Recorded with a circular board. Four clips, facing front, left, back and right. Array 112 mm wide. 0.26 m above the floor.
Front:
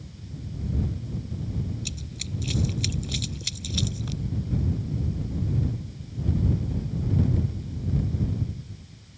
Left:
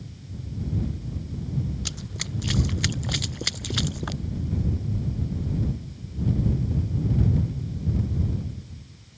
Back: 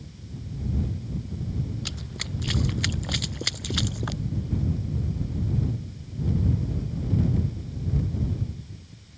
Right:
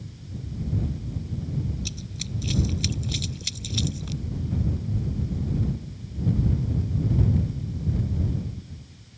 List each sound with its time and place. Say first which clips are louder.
1.9 s running footsteps: left 1 dB, back 1 dB; 140° left; by 4.2 s 135° left